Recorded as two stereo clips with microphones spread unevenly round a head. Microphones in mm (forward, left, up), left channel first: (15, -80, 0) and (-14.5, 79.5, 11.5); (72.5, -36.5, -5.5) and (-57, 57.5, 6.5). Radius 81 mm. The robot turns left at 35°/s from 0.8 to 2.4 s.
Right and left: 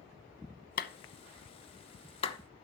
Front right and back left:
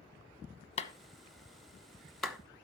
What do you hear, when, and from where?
0.8 s a clap: 80° right, 1.0 m; by 2.4 s 135° right, 1.0 m